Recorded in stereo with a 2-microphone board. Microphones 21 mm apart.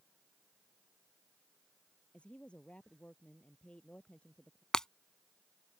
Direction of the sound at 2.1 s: 75° left (ahead or behind).